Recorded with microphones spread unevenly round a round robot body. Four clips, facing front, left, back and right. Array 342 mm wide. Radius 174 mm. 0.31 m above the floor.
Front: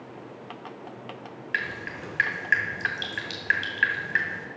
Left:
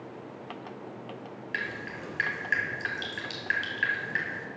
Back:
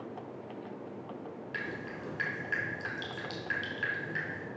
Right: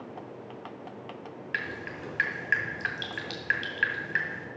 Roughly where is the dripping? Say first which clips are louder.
Even, front 8 dB; ahead.